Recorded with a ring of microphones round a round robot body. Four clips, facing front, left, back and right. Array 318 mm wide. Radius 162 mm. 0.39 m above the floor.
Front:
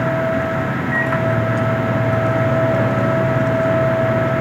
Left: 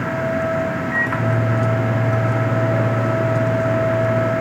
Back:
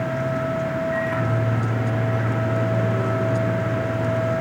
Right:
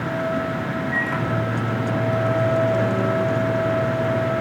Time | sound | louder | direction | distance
0.9 | a microwave | left 3 dB, front 5 dB | 15° left | 3.5 m